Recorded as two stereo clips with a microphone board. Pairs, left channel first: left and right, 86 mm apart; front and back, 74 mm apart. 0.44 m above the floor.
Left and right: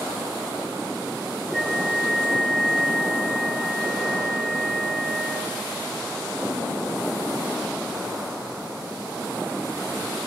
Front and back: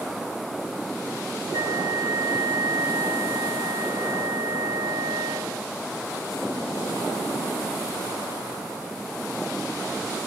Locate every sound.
1.5 s a flute: 165° left, 4 m